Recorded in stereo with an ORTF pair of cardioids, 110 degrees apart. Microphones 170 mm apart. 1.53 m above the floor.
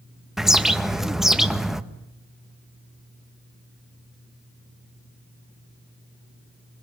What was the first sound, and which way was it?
A bird, straight ahead.